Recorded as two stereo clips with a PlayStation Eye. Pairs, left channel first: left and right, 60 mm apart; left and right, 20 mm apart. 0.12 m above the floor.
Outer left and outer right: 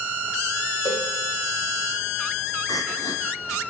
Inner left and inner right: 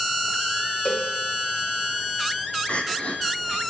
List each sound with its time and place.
0.8 s a cowbell: 80° left, 5 m
2.7 s crying: 70° left (ahead or behind), 2.5 m